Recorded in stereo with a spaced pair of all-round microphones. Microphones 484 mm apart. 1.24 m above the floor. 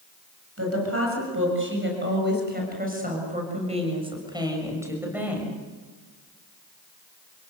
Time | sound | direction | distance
0.6 | a woman speaking | 30° right (ahead or behind) | 7.5 m